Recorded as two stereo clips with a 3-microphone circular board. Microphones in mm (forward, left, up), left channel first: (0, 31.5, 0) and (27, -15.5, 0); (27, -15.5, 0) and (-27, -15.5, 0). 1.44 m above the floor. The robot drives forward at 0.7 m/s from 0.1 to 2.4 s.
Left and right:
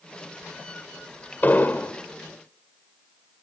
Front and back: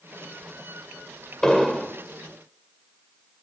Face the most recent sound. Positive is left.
turn(degrees=100)